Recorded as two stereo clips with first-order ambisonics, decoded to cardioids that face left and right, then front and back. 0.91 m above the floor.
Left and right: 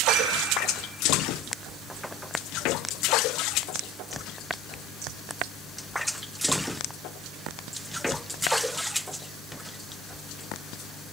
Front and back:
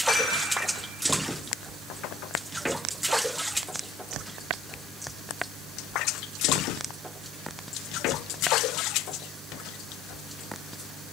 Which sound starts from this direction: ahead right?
Dishes clattering, at 0.1 s.